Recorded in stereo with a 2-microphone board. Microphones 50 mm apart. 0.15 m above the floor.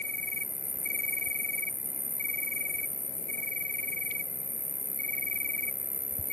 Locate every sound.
0.0 s an insect: 40° left (ahead or behind)